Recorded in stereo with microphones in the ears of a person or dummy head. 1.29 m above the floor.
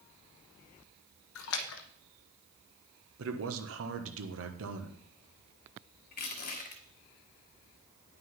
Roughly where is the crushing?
Left.